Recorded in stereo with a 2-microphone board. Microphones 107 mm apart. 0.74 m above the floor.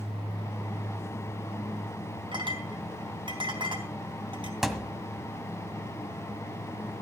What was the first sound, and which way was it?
A clink, 50° right (ahead or behind).